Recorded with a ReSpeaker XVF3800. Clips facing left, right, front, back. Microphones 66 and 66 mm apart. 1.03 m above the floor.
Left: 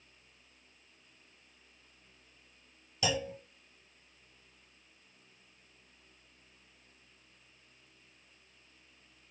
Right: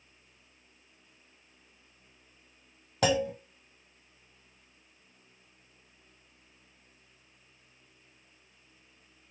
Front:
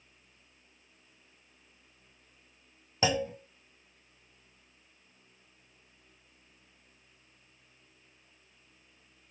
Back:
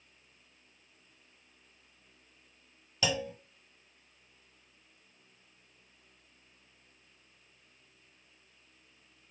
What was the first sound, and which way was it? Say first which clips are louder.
A clunk: right 7 dB, front 4 dB; 60° right.